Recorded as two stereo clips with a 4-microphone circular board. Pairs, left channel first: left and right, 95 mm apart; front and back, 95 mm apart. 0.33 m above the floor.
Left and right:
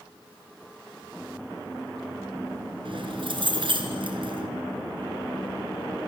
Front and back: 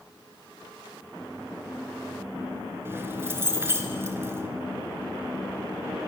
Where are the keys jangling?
115° right, 3.5 m.